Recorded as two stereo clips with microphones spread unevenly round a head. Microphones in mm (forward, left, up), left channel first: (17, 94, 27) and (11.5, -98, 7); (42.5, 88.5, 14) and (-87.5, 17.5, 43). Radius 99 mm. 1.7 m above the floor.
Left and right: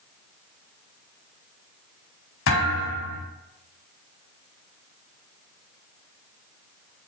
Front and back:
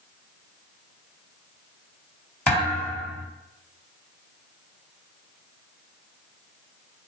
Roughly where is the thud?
Behind left.